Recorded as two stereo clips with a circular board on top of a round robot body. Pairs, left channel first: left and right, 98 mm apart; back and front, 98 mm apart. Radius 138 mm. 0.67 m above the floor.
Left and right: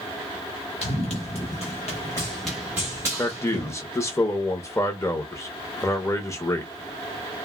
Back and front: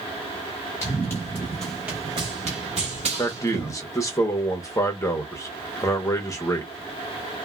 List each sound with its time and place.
0.8 s running footsteps: 115° left, 1.1 m; by 3.7 s 35° right, 1.3 m
3.2 s a man speaking: 135° left, 0.9 m